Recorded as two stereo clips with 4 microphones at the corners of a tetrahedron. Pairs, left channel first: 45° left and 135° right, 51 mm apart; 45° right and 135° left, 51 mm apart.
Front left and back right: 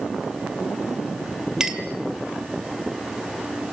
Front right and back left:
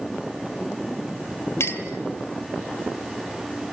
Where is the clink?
60° right, 2 m.